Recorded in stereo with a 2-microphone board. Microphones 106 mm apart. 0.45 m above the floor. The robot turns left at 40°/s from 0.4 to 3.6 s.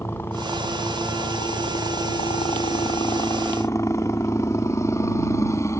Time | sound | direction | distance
0.0 | a helicopter | 160° left | ?